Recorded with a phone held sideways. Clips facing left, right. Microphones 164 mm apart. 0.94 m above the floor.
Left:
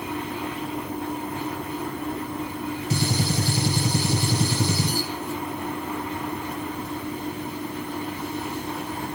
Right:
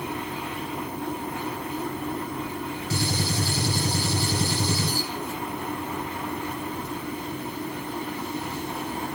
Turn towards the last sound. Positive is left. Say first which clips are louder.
# left 2 dB
turn(degrees=20)  # may be behind; listen again after turning